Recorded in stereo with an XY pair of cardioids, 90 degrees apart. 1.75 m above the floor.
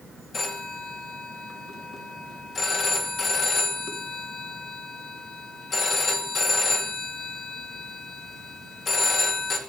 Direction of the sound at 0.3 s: 60° left.